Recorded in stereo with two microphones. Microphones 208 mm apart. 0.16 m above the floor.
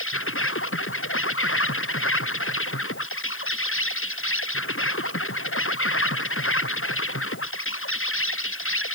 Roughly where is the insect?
Left.